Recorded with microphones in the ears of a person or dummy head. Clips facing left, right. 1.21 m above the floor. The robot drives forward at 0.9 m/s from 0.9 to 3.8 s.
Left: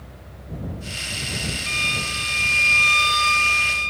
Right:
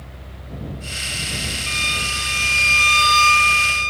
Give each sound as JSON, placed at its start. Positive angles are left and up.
{"t": 1.7, "sound": "a violin", "side_deg": -10}